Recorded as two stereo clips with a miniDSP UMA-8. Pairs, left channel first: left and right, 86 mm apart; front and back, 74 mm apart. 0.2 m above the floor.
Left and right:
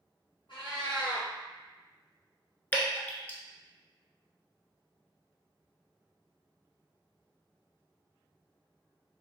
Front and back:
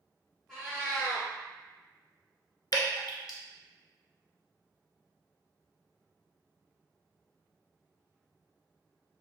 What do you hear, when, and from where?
0.5 s a cat meowing: 85° left, 1.4 m
2.7 s dripping: 20° left, 0.7 m